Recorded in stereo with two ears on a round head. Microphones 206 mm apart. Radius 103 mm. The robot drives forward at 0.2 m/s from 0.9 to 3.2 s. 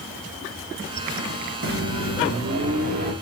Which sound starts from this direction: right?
A microwave, at 1.6 s.